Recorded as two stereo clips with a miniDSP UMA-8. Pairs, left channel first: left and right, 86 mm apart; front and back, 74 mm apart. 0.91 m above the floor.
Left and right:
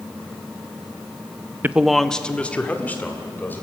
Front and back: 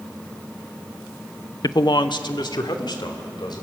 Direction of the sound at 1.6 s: 25° right.